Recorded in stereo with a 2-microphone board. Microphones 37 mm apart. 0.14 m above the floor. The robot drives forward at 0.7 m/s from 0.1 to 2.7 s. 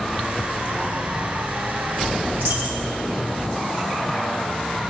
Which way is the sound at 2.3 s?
60° right (ahead or behind).